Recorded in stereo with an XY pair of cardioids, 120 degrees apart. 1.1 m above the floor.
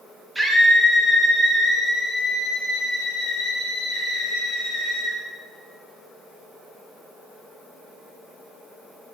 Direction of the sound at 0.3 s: 15° right.